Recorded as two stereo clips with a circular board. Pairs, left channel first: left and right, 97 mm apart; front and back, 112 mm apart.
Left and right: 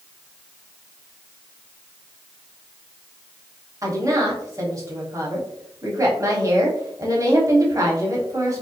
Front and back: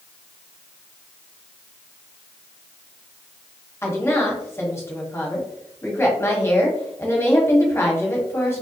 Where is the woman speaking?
55° right, 1.4 m.